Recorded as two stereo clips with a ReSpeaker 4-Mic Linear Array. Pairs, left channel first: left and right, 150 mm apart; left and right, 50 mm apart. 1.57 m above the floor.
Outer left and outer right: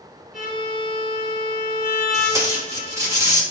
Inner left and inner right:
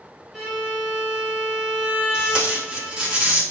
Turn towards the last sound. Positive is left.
turn(degrees=-20)  # may be behind; listen again after turning